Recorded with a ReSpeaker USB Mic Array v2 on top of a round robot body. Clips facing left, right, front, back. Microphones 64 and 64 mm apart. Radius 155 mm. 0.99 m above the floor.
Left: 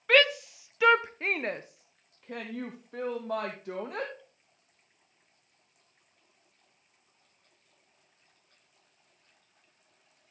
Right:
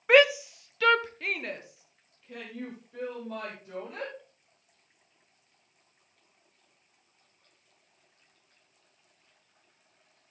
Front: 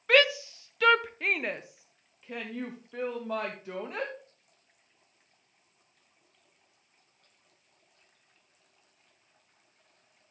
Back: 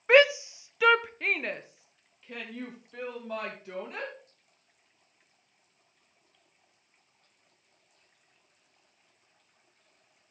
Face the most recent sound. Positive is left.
turn(degrees=65)